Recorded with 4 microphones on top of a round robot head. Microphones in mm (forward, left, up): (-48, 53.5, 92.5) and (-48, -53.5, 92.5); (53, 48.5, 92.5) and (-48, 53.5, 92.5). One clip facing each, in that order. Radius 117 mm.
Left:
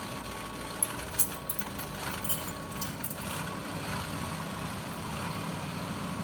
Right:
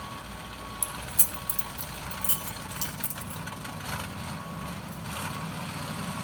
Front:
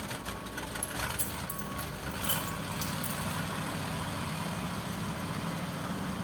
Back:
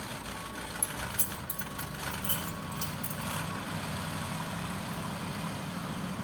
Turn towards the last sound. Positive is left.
turn(degrees=-75)